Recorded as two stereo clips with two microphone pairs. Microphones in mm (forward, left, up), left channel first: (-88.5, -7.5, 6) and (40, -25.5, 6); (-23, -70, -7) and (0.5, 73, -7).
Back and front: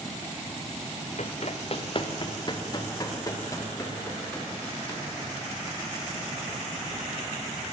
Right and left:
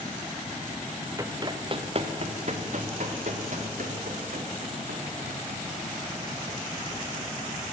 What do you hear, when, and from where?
1.2 s running footsteps: 150° left, 1.2 m; by 6.9 s 95° left, 5 m